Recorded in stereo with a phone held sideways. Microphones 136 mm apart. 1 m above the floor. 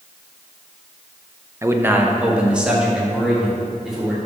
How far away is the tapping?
I don't hear tapping.